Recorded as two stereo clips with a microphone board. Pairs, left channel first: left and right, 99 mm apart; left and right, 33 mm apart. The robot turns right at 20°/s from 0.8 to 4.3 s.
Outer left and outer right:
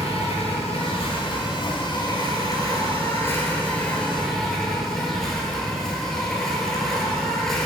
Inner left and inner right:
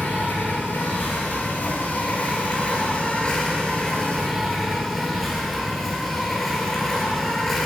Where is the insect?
105° left, 1.6 m; by 7.7 s 175° left, 1.6 m.